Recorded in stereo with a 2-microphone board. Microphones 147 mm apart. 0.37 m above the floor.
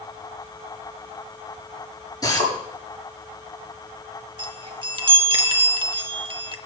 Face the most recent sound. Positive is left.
turn(degrees=-35)  # may be behind; listen again after turning